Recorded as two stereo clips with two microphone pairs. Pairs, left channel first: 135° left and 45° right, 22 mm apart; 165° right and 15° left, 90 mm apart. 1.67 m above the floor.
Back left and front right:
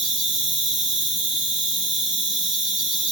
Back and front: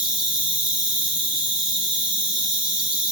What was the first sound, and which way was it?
An insect, 60° right.